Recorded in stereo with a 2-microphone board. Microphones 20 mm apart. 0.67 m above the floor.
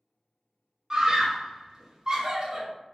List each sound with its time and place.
0.9 s a scream: 25° right (ahead or behind), 0.7 m